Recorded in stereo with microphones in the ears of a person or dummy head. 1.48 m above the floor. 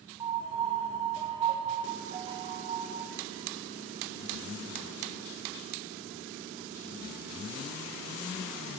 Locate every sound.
0.2 s a piano: 25° right (ahead or behind), 0.6 m